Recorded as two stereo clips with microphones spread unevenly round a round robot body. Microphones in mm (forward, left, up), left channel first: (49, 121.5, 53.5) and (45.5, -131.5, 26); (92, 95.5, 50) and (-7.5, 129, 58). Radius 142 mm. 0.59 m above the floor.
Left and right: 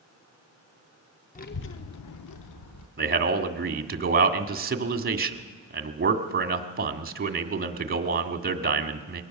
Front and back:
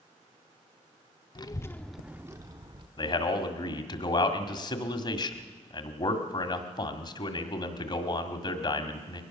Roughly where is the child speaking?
Ahead left.